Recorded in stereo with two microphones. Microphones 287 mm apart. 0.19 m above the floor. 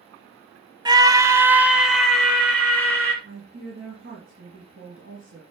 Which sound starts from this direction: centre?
A scream, at 0.8 s.